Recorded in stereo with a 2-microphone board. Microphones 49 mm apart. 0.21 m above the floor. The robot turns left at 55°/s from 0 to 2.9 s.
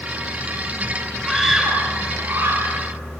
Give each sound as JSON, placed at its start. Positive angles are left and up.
{"t": 1.2, "sound": "a scream", "azimuth_deg": 0, "distance_m": 4.0}